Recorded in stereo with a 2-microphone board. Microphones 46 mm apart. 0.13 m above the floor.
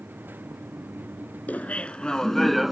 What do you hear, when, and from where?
1.5 s laughter: 35° left (ahead or behind); by 2.7 s 5° right (ahead or behind)